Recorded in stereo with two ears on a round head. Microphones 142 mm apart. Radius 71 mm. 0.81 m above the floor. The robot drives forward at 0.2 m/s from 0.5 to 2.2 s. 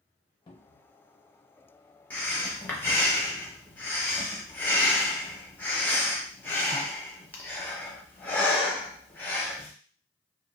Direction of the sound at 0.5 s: 30° left (ahead or behind).